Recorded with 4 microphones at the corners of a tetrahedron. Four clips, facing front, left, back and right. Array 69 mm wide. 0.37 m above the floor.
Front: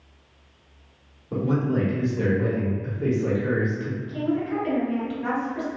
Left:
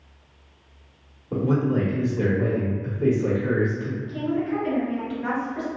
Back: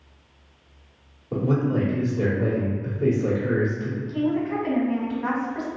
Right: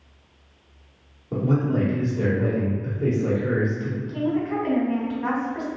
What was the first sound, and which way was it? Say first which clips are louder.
A man speaking: left 1 dB, back 1 dB; 120° left.